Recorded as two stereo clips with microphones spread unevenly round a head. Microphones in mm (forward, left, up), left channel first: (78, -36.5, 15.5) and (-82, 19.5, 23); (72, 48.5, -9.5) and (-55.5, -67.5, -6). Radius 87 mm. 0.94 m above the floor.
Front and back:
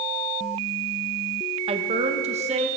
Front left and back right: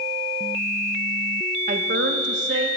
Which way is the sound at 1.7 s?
155° right.